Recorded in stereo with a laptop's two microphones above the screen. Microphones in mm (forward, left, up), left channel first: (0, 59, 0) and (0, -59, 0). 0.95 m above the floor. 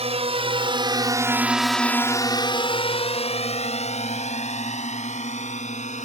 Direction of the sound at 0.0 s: 60° right (ahead or behind).